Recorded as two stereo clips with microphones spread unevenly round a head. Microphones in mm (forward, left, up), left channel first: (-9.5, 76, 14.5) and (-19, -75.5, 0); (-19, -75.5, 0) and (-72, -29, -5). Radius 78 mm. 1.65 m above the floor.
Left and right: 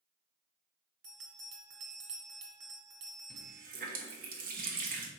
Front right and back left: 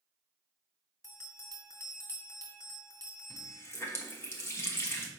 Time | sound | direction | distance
1.0 | a bell | 90° right | 1.9 m
3.3 | a running tap | 75° right | 1.2 m